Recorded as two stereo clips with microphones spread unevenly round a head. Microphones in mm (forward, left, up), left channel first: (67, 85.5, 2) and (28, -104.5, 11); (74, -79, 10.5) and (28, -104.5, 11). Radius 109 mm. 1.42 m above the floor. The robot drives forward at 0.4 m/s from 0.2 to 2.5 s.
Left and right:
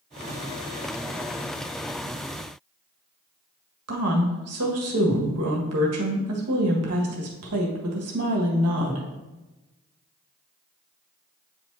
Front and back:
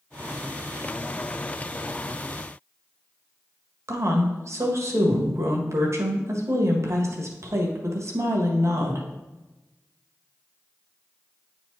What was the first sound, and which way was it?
A woman speaking, 125° right.